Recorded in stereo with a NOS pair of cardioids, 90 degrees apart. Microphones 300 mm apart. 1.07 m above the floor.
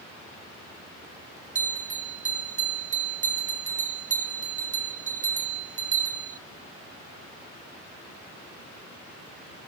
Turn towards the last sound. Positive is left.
turn(degrees=-25)